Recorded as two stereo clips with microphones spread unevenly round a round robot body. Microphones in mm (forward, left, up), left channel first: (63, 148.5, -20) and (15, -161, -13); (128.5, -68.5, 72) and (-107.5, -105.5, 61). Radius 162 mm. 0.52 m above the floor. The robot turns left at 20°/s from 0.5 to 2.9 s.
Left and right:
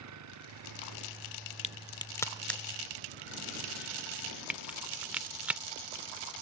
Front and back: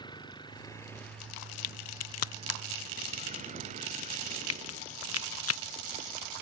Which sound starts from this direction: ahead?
A crack, at 1.6 s.